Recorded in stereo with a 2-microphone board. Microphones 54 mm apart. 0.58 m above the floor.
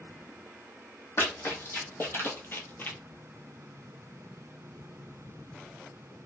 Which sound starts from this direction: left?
Running footsteps, at 1.2 s.